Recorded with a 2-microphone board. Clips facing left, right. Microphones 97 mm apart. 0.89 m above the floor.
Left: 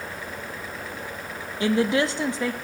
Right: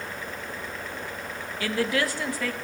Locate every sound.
1.6 s a woman speaking: 25° left (ahead or behind), 0.9 m